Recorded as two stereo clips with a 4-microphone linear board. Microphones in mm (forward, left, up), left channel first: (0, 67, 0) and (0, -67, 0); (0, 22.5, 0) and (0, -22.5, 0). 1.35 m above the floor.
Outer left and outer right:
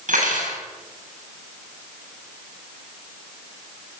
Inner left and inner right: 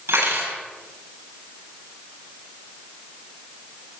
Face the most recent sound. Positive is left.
turn(degrees=-75)  # may be behind; listen again after turning